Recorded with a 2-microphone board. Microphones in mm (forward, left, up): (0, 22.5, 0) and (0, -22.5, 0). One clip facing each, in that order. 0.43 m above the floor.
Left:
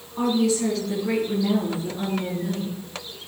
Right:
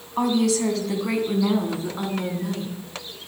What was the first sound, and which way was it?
A woman speaking, 75° right (ahead or behind).